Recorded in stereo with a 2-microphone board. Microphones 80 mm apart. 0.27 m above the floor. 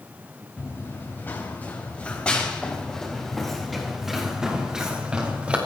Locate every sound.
0.6 s running footsteps: 30° left (ahead or behind), 3.5 m; by 5.6 s 15° right (ahead or behind), 4 m